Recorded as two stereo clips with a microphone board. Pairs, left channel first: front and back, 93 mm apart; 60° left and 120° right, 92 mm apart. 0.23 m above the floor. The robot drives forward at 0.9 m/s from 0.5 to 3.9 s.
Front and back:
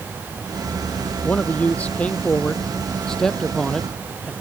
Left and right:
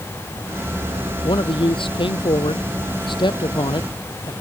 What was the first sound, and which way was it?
A man speaking, 70° left.